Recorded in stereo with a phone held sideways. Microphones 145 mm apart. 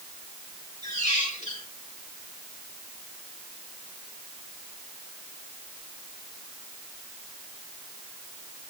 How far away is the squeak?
About 3.5 m.